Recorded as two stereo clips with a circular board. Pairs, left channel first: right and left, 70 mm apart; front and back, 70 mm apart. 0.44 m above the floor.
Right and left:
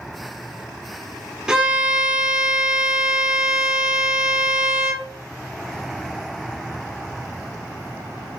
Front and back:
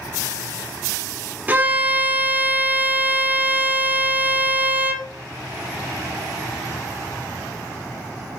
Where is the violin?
160° left, 0.7 m.